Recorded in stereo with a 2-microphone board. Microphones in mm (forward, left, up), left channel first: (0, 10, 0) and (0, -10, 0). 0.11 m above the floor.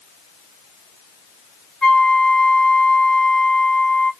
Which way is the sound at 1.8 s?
40° left (ahead or behind).